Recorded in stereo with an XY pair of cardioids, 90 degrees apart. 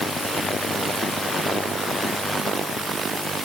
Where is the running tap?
No running tap in this recording.